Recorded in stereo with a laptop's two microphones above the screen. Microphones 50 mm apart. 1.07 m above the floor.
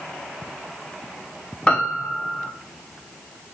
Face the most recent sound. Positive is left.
turn(degrees=25)  # may be behind; listen again after turning